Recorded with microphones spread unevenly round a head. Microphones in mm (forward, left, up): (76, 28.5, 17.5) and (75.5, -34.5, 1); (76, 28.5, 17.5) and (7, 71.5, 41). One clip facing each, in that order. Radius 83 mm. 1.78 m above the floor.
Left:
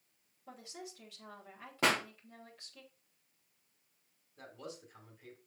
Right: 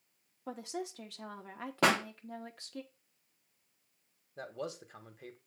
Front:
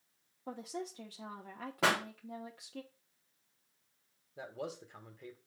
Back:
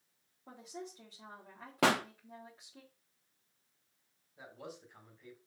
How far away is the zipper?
No zipper in this recording.